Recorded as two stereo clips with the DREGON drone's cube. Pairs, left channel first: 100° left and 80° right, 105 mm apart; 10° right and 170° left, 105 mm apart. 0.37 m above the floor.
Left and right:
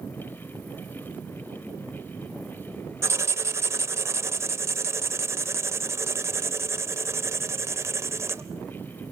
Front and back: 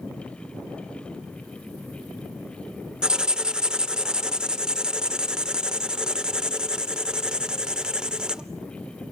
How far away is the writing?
About 0.6 m.